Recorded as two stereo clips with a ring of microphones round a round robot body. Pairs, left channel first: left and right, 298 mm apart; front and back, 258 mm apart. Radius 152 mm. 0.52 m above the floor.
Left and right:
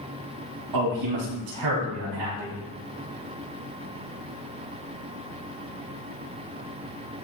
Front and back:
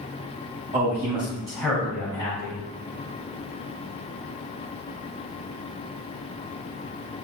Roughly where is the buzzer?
No buzzer in this recording.